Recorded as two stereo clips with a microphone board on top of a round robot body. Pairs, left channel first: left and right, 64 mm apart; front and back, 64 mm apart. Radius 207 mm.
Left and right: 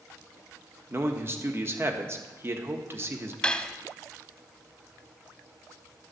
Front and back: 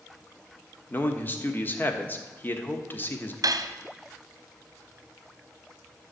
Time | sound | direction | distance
0.9 | a man speaking | 50° right | 1.6 m
3.4 | cutlery clinking | 165° left | 0.9 m